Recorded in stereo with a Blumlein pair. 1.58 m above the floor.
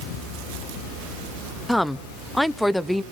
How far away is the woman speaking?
About 0.9 m.